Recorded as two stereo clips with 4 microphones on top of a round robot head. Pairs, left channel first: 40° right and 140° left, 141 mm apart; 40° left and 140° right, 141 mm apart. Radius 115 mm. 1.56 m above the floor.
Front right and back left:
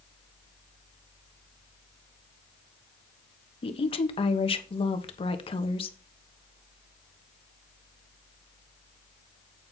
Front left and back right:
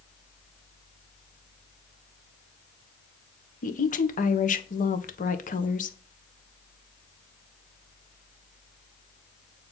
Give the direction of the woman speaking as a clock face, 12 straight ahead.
12 o'clock.